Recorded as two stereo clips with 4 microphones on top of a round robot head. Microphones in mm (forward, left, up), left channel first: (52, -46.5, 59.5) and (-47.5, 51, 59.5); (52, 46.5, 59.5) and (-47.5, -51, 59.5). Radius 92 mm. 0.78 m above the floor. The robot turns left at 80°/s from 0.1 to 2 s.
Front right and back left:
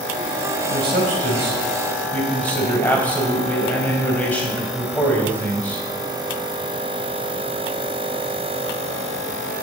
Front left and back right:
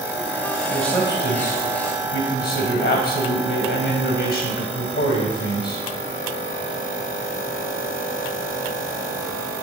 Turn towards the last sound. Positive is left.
turn(degrees=35)